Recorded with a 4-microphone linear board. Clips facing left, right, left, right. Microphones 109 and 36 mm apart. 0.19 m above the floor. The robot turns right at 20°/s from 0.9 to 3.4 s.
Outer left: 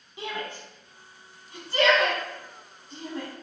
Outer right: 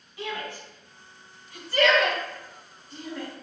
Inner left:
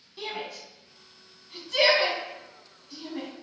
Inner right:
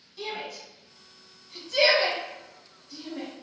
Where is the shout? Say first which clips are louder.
Even, even; 20° left (ahead or behind), 1.2 m; by 3.3 s 25° left (ahead or behind), 1.2 m.